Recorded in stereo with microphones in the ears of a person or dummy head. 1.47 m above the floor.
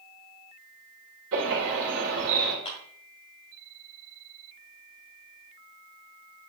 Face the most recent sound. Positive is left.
turn(degrees=30)  # may be behind; listen again after turning